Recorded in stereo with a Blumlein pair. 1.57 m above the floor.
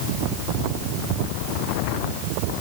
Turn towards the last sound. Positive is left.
No sound to turn to.